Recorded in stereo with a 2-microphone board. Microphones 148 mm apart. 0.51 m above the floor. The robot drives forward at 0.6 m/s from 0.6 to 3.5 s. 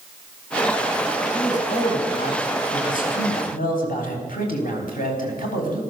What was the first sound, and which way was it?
A man speaking, 55° left (ahead or behind).